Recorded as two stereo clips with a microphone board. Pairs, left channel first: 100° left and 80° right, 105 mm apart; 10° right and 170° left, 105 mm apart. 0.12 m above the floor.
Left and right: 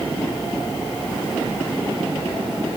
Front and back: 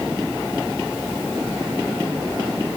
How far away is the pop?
I don't hear a pop.